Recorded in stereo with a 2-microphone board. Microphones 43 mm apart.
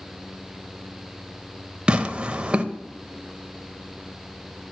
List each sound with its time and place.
1.9 s tearing paper: 25° right (ahead or behind), 0.5 m